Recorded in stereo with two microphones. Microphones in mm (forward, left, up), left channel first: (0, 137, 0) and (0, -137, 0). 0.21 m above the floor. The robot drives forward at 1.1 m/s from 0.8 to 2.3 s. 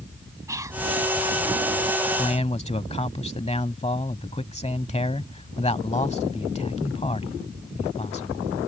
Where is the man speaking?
25° left (ahead or behind).